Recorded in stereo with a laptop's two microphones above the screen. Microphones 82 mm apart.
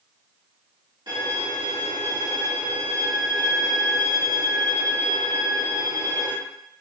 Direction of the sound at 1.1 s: 65° right (ahead or behind).